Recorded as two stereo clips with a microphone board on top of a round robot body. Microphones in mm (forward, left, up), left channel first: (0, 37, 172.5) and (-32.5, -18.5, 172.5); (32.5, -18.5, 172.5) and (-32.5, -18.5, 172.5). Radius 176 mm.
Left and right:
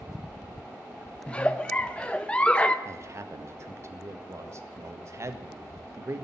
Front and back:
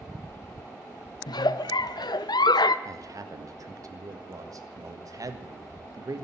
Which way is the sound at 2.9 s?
160° right.